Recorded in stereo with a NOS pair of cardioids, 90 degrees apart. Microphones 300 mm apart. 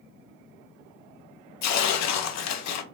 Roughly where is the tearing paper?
Ahead left.